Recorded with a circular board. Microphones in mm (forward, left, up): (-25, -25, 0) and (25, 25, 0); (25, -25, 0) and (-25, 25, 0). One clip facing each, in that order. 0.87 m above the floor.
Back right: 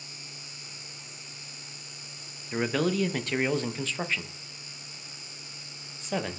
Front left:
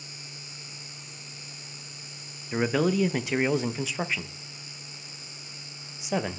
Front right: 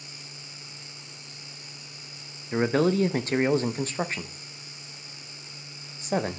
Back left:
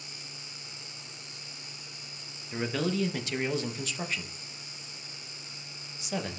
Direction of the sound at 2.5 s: 30° right.